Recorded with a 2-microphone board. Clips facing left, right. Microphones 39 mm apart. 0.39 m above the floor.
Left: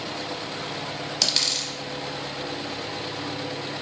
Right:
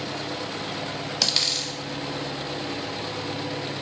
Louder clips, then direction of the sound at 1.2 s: Even; 5° right (ahead or behind).